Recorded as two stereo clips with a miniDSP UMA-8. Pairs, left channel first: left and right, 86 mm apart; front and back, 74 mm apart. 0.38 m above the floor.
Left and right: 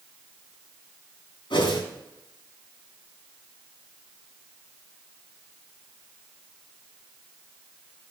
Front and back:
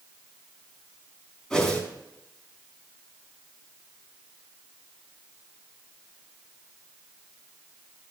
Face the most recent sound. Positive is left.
turn(degrees=75)